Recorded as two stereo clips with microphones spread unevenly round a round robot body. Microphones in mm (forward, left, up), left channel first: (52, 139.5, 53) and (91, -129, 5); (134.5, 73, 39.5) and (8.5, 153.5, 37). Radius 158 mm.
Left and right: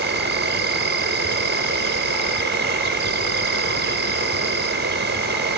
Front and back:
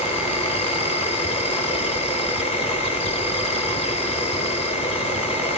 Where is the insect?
65° right, 1.4 m.